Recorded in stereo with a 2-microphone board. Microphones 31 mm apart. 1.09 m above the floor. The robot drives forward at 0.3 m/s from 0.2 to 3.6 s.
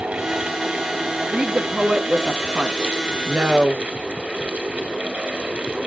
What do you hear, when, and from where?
1.3 s a woman speaking: 25° right (ahead or behind), 2 m; by 3.8 s 35° right (ahead or behind), 1.5 m